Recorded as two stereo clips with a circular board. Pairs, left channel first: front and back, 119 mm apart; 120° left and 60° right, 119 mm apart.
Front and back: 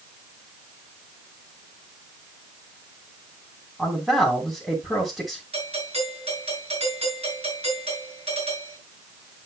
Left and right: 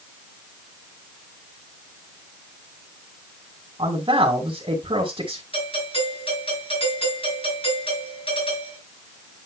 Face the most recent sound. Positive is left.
turn(degrees=150)